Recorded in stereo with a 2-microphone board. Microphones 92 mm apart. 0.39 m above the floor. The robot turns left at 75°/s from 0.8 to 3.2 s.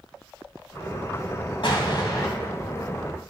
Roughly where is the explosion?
Left.